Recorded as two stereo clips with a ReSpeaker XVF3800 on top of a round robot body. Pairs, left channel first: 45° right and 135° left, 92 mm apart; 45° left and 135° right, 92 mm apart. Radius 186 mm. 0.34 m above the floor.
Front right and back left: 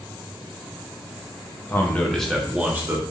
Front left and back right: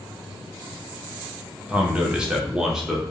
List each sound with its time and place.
1.7 s a man speaking: 75° right, 0.9 m; by 3.0 s 145° left, 1.0 m